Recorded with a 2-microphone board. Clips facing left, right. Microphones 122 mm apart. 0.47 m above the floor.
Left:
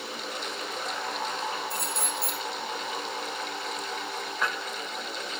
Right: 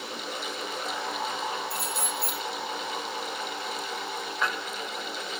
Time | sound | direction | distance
1.7 | keys jangling | 5° right (ahead or behind) | 4.5 m